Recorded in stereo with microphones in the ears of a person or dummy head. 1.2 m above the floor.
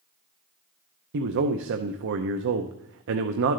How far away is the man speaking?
About 0.7 m.